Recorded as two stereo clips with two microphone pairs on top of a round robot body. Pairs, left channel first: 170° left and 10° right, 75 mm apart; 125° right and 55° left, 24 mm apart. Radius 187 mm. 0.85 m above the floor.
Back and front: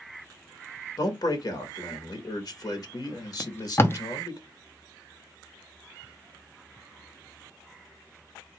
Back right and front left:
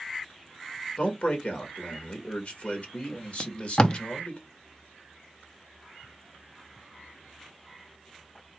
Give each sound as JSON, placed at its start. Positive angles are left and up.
{"t": 1.0, "sound": "a man speaking", "azimuth_deg": -155, "distance_m": 1.5}
{"t": 3.4, "sound": "tape being pulled", "azimuth_deg": -155, "distance_m": 0.8}